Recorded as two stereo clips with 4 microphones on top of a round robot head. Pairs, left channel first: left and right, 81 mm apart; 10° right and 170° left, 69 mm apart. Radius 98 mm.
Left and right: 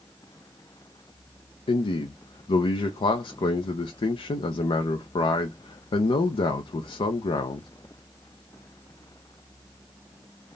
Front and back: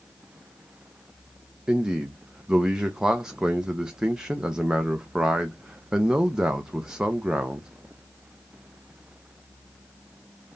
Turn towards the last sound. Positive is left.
turn(degrees=90)